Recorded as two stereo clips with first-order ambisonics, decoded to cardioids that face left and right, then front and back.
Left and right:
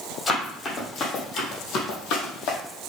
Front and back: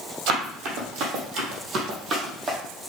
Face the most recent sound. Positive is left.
turn(degrees=115)